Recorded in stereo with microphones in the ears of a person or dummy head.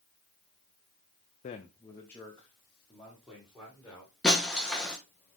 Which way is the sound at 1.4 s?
35° left (ahead or behind).